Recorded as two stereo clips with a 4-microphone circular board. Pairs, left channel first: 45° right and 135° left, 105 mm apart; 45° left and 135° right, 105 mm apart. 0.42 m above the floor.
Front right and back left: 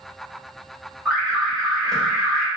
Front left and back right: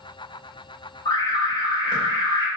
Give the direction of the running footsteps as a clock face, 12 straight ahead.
I don't hear running footsteps.